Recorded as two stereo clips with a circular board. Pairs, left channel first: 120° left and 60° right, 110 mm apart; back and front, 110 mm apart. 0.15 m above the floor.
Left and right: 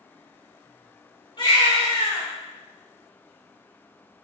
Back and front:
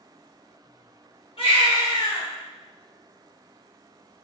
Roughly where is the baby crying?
Behind.